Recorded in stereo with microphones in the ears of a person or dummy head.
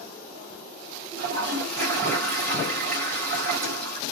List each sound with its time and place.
1.2 s a toilet flushing: 50° right (ahead or behind), 1.7 m